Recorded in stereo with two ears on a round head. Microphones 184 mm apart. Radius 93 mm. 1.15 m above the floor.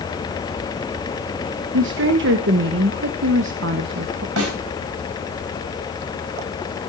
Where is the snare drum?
85° right, 5.5 m.